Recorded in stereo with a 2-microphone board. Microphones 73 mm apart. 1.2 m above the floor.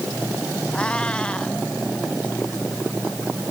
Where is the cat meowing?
15° left (ahead or behind).